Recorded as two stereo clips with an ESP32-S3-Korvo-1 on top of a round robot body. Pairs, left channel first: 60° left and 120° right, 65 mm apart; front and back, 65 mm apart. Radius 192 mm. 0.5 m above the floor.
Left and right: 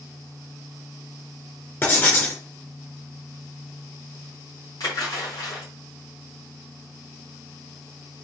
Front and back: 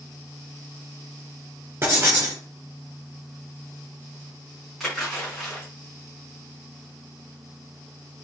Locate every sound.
1.8 s writing: 125° left, 1.8 m
4.8 s a splash: 85° left, 4.5 m